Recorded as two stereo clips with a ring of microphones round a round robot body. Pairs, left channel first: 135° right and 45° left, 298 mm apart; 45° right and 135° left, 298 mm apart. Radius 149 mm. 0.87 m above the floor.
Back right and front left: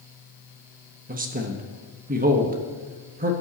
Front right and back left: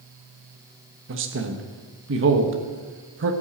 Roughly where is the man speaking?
Left.